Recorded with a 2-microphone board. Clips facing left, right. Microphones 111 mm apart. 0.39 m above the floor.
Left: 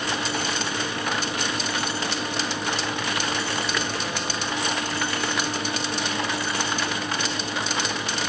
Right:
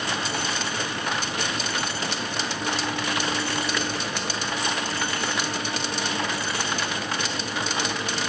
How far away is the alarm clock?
No alarm clock in this recording.